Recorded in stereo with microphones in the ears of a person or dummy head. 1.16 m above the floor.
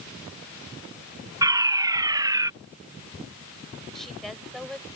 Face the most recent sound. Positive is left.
turn(degrees=5)  # may be behind; listen again after turning